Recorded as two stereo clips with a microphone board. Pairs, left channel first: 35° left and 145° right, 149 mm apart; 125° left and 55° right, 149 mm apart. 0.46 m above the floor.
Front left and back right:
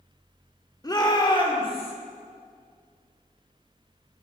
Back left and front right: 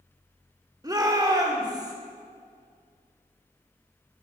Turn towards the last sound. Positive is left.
turn(degrees=0)